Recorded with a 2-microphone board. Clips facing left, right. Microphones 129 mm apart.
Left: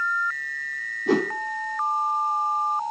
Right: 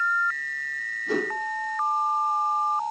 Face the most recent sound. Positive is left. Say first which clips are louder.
# left 5 dB
turn(degrees=85)